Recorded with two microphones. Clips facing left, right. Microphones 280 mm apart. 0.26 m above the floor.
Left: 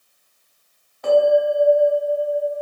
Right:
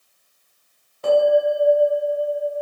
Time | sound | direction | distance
1.0 | a bell | 35° right (ahead or behind) | 1.4 m